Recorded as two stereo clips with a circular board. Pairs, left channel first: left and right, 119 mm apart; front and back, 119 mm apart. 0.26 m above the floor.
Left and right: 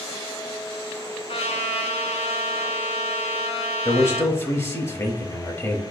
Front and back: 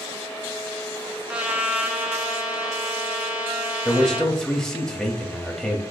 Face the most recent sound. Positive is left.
turn(degrees=80)